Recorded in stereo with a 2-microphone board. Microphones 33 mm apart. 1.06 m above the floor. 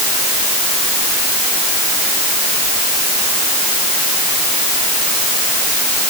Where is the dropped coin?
I don't hear a dropped coin.